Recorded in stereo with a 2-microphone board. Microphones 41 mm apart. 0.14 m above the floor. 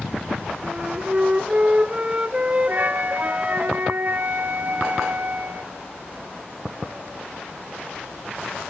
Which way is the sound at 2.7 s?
50° right (ahead or behind).